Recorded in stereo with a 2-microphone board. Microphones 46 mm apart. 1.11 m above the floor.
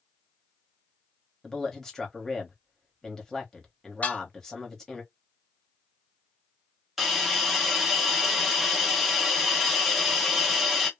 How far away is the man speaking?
About 1.0 m.